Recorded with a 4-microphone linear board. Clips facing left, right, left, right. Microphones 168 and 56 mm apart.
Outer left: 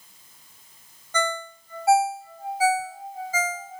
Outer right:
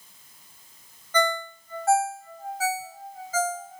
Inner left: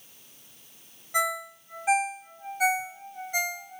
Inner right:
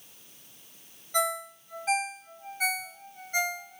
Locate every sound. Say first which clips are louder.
1.1 s a ringtone: outer right 3 dB, inner left 1 dB; 10° left (ahead or behind), 0.8 m